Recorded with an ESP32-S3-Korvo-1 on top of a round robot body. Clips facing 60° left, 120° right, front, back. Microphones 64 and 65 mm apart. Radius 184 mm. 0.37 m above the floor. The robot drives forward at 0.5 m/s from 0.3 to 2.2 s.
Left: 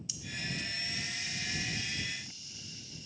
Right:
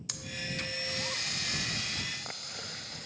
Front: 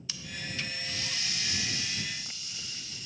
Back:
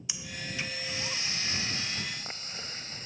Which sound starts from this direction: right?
Breathing, at 0.1 s.